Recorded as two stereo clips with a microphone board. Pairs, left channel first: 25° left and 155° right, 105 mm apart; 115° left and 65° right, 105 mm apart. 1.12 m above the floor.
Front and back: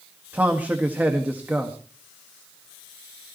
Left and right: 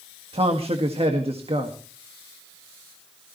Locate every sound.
0.3 s a man speaking: 85° right, 1.8 m